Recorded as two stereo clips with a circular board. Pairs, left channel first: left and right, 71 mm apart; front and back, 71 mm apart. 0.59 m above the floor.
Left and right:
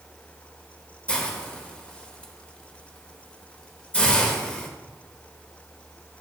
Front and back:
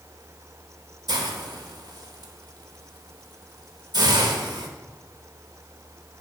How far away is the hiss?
About 0.9 m.